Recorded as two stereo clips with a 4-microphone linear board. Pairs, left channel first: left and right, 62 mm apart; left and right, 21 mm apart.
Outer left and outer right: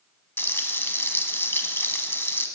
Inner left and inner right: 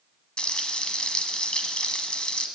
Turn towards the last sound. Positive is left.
turn(degrees=40)  # may be behind; listen again after turning